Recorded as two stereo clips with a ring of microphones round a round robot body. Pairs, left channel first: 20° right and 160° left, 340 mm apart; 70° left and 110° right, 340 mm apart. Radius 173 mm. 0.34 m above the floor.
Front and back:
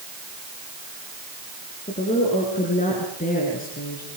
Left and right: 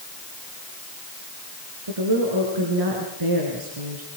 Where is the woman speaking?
95° right, 5.5 m; by 4.1 s 85° right, 5 m.